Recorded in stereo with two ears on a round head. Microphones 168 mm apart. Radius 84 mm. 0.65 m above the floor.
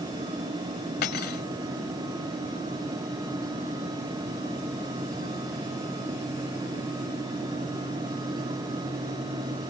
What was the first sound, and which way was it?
Cutlery clinking, 55° left (ahead or behind).